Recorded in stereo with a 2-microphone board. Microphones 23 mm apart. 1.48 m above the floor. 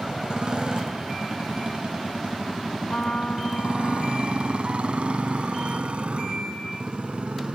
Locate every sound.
0.0 s a motorcycle: 45° right (ahead or behind); by 7.6 s 80° right
2.8 s a trumpet: 55° left (ahead or behind)